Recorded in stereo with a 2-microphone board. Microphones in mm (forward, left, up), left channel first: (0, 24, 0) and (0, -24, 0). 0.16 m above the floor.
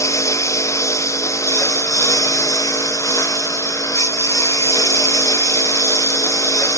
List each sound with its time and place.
0.0 s a lawn mower: 85° left